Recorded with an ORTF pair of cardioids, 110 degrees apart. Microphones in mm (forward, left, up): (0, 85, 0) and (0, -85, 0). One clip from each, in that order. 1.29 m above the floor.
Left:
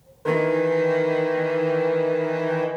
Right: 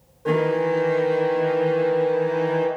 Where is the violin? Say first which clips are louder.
Even; 20° left, 0.7 m.